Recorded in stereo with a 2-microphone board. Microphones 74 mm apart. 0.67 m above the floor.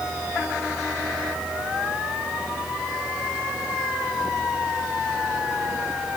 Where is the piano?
I don't hear a piano.